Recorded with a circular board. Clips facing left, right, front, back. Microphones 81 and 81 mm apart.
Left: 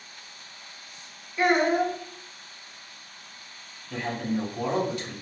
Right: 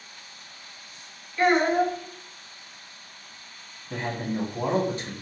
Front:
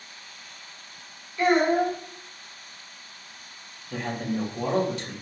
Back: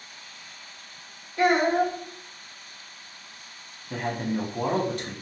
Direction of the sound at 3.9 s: 150° right.